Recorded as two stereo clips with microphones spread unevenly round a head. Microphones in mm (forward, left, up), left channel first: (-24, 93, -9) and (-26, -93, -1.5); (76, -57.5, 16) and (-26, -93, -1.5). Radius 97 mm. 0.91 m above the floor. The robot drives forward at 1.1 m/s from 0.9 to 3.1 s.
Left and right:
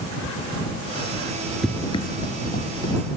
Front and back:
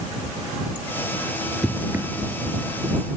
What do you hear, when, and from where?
1.6 s running footsteps: 5° right, 0.9 m; by 3.0 s 140° left, 2.5 m